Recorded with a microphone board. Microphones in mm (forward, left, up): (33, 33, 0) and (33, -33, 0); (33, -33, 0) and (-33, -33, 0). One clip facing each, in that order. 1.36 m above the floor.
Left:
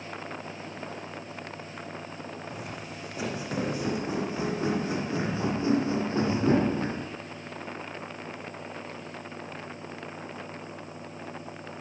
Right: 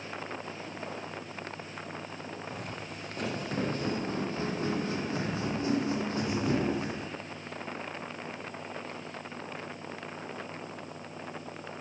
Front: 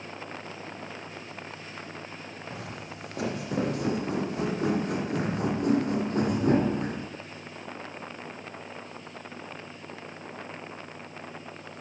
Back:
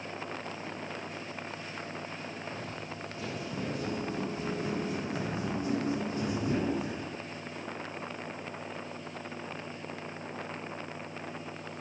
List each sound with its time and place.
2.5 s footsteps: 5° left, 4.5 m; by 7.1 s 35° left, 4 m